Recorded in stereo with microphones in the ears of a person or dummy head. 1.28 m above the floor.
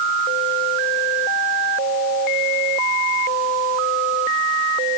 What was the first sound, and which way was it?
Only background noise.